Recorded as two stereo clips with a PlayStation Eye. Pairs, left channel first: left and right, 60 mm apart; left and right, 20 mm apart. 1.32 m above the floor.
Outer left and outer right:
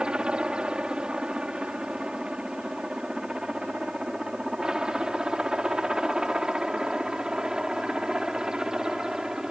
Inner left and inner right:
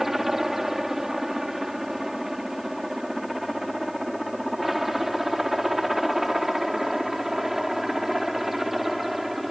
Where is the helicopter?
15° right (ahead or behind); by 9.5 s 10° right (ahead or behind).